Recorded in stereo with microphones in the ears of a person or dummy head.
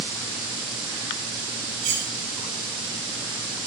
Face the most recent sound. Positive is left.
turn(degrees=-85)